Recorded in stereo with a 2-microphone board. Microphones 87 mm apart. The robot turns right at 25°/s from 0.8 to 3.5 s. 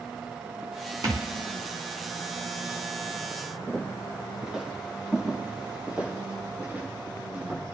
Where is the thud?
40° right (ahead or behind), 3 m; by 1.3 s 45° right (ahead or behind), 3 m.